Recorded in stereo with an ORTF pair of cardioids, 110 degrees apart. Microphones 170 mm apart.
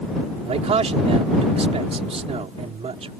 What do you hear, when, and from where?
0.5 s a man speaking: 35° right